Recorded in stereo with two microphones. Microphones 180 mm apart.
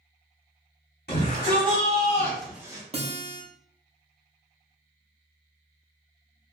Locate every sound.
1.1 s a shout: 60° left (ahead or behind), 1.7 m; by 2.8 s 25° right (ahead or behind), 1.0 m
2.9 s a guitar: 35° right (ahead or behind), 0.6 m